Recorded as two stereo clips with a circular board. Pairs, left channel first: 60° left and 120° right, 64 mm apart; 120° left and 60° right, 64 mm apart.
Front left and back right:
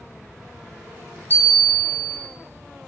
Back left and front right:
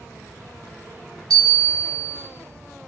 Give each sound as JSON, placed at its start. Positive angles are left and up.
{"t": 1.3, "sound": "a bell", "azimuth_deg": 50, "distance_m": 1.3}